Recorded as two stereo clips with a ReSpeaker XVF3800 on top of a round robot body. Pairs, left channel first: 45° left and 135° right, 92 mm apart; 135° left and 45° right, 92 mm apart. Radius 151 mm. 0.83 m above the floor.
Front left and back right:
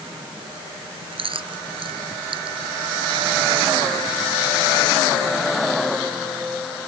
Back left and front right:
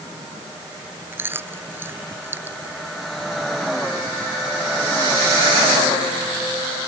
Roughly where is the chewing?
Right.